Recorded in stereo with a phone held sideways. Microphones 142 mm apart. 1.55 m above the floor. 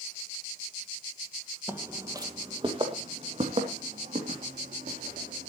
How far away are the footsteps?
About 1.7 m.